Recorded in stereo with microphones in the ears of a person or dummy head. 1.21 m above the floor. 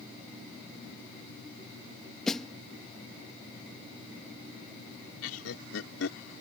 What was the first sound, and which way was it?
A snare drum, centre (ahead or behind).